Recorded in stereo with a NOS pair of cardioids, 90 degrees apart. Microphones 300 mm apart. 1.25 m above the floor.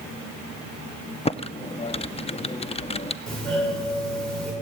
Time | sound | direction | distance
1.2 | typing on a keyboard | 20° left | 0.5 m
3.3 | a doorbell | 5° left | 7.5 m